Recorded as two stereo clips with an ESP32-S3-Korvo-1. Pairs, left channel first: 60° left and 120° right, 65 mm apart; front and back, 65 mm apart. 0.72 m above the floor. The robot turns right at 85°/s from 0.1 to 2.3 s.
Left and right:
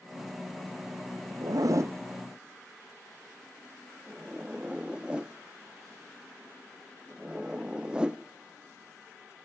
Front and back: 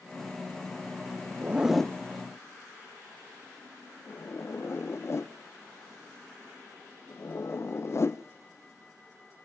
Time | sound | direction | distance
1.4 | a zipper | 120° right | 0.6 m